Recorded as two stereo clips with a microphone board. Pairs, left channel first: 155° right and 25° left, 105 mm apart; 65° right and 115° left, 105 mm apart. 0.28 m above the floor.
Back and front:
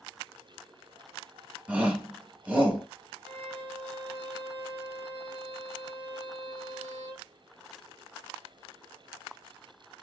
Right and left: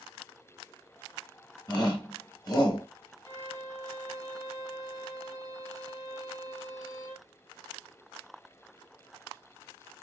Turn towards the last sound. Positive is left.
turn(degrees=-25)